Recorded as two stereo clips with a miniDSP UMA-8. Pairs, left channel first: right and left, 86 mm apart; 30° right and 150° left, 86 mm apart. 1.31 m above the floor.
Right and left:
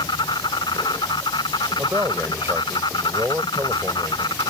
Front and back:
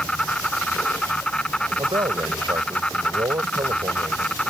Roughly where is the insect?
Right.